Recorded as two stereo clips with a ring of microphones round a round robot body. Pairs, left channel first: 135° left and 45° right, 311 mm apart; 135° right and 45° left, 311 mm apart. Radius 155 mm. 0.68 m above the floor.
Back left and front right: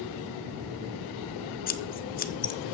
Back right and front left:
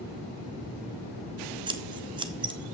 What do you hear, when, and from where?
1.7 s scissors: 105° left, 0.7 m